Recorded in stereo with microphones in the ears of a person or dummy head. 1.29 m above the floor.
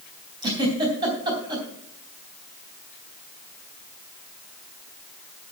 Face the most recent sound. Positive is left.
turn(degrees=-20)  # may be behind; listen again after turning